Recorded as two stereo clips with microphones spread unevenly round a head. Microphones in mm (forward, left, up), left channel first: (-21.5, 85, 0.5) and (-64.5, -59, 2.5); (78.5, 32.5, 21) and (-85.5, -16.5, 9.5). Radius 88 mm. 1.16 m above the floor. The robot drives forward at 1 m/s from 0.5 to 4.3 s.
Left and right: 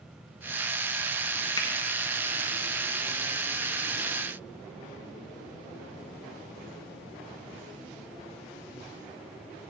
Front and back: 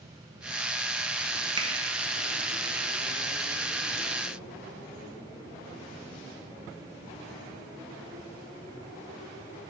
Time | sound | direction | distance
1.6 | a finger snap | 135° left | 1.3 m